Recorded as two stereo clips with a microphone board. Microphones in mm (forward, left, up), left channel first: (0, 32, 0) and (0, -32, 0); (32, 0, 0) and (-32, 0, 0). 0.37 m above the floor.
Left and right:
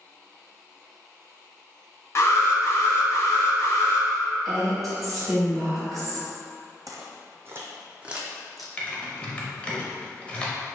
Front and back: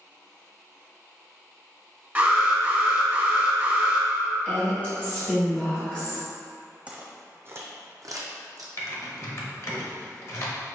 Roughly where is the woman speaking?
Ahead.